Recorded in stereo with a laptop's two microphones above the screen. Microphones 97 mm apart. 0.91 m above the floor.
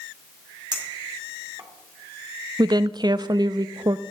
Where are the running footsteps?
No running footsteps in this recording.